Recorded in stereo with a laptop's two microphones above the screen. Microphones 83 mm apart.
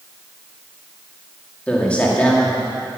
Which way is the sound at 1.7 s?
15° left (ahead or behind).